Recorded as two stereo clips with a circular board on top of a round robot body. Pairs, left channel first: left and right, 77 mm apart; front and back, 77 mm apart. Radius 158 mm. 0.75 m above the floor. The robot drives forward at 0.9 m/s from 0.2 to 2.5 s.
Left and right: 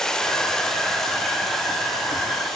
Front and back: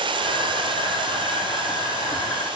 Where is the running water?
175° left, 1.1 m; by 2.6 s straight behind, 3 m.